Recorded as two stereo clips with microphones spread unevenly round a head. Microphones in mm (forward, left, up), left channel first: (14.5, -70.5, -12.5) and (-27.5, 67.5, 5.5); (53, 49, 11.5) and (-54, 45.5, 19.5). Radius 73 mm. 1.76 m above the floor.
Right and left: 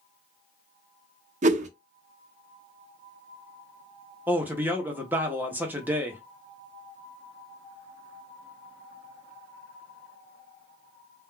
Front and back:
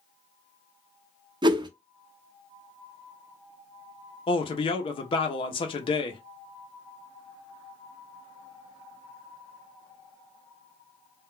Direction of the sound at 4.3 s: 35° left.